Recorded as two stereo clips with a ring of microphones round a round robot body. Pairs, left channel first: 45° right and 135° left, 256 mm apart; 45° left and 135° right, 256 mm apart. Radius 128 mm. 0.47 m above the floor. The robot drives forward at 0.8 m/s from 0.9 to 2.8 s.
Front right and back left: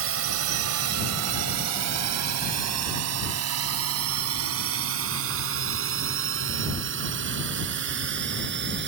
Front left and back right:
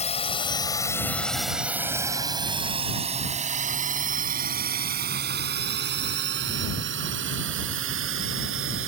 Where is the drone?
105° left; by 8.9 s 175° right.